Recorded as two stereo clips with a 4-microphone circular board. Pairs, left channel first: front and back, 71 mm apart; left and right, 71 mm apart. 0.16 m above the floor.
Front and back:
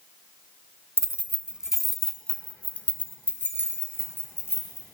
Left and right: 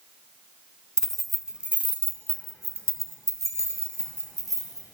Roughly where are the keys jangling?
Behind.